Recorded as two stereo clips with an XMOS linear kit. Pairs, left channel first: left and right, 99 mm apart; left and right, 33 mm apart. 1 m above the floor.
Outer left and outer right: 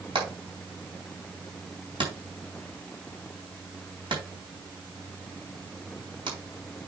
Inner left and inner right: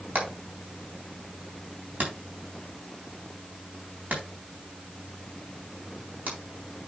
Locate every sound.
0.1 s hammering: 55° right (ahead or behind), 4 m